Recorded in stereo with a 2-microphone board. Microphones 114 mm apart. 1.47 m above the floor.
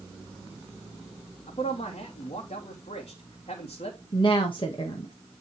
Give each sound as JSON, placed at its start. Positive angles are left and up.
{"t": 1.5, "sound": "a man speaking", "side_deg": 70, "distance_m": 3.0}
{"t": 4.1, "sound": "a woman speaking", "side_deg": 50, "distance_m": 1.7}